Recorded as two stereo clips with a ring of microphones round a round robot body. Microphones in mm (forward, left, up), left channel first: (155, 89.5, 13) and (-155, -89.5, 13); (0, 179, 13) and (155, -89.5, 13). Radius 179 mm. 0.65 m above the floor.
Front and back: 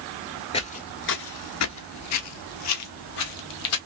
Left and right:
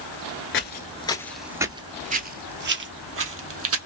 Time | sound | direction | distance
0.5 | footsteps | 95° left | 0.7 m